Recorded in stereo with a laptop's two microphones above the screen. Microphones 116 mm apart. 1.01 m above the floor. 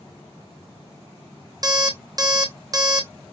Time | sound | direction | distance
1.6 | an alarm clock | 35° right (ahead or behind) | 0.6 m